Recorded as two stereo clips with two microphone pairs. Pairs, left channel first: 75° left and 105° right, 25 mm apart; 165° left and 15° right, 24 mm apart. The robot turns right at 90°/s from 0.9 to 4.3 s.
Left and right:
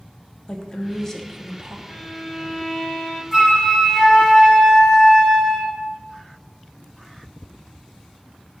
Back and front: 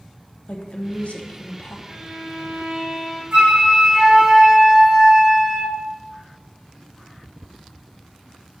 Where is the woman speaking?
130° left, 0.5 m; by 1.8 s 150° right, 0.5 m.